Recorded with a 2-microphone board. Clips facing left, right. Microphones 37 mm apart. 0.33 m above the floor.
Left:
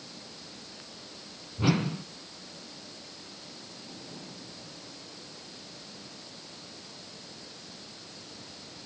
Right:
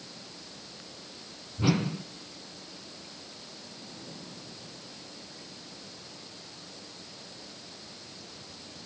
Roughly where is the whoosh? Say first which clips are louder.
Even; centre.